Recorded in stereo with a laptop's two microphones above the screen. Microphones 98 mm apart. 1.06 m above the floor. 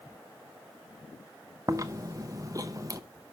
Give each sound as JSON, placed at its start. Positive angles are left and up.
{"t": 1.7, "sound": "chewing", "side_deg": -35, "distance_m": 0.6}